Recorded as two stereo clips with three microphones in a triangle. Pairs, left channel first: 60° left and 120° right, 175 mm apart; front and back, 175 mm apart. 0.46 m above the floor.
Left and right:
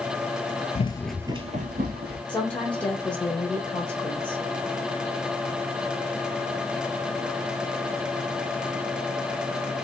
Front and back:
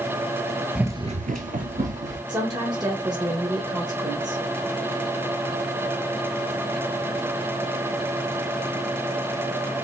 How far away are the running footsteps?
About 0.7 m.